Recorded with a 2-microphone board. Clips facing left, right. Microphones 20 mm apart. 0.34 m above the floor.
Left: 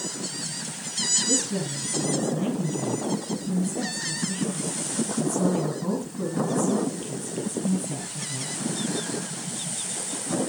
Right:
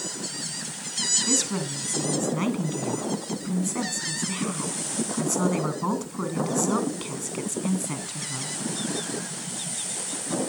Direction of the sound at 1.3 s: 55° right (ahead or behind).